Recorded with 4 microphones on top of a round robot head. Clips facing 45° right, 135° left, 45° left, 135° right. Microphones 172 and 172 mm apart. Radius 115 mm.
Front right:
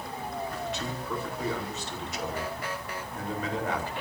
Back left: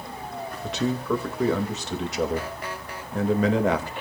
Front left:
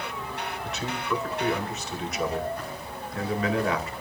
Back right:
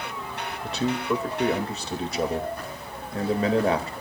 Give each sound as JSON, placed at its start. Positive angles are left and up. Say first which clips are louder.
{"t": 0.6, "sound": "a man speaking", "louder": "back left 8 dB, back right 7 dB", "azimuth_deg": 165, "distance_m": 2.0}